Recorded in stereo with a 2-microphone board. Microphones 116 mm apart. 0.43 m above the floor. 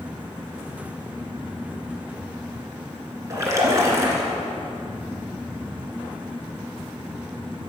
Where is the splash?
25° right (ahead or behind), 1.6 m.